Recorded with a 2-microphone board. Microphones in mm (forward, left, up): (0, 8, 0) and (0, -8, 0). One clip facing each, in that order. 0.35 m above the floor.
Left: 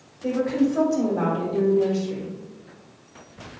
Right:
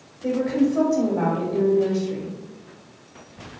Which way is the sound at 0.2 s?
10° left (ahead or behind).